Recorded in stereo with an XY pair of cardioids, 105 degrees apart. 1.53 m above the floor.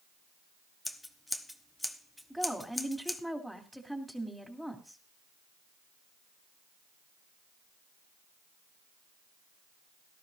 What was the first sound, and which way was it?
Scissors, 10° left.